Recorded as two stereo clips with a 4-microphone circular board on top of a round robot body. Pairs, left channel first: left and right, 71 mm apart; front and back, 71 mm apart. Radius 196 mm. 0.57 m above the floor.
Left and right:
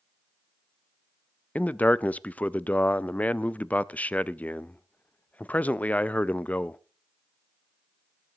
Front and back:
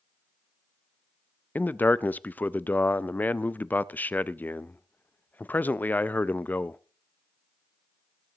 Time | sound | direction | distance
1.6 | a man speaking | 40° left | 0.6 m